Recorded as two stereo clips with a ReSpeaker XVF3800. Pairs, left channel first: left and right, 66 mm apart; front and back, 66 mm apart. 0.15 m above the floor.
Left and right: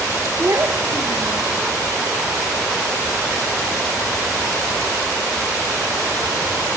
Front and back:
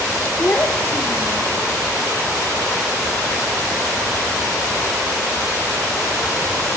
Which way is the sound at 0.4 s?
50° right.